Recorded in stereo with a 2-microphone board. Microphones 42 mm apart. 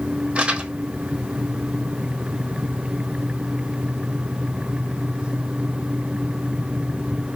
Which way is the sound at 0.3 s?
35° right (ahead or behind).